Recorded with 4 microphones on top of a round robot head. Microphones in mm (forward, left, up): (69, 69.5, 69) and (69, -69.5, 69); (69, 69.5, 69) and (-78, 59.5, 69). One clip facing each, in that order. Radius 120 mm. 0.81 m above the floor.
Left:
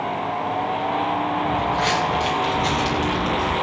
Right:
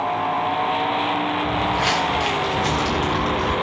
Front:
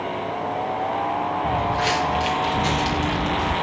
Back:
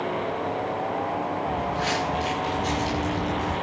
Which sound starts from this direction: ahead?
Footsteps, at 1.4 s.